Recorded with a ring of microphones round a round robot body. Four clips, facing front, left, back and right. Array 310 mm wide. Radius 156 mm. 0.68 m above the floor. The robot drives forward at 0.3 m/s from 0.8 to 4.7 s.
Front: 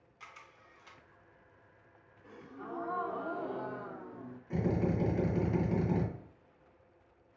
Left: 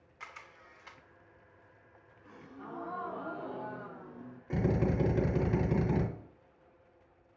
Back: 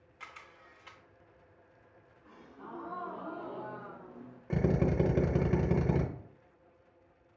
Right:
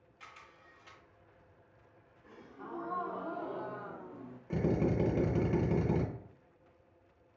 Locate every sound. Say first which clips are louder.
0.2 s a camera shutter: left 5 dB, back 3 dB; 120° left, 0.5 m; by 1.0 s 125° left, 0.5 m
2.2 s a gasp: even, front 4 dB; 15° right, 1.1 m; by 4.4 s 35° right, 0.5 m
4.5 s a drill: even, back 2 dB; 170° left, 1.0 m